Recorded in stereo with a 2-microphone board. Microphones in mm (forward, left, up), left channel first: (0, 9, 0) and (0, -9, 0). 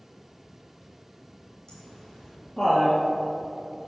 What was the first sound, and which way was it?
Laughter, 30° left (ahead or behind).